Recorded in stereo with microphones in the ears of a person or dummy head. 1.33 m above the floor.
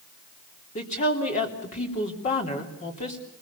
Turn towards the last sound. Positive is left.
turn(degrees=35)  # may be behind; listen again after turning